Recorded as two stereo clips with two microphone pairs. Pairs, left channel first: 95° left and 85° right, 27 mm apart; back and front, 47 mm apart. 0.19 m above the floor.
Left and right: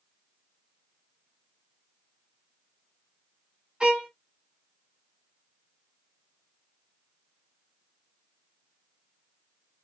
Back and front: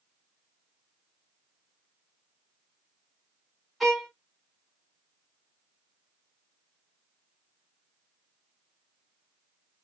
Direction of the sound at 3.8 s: 90° right.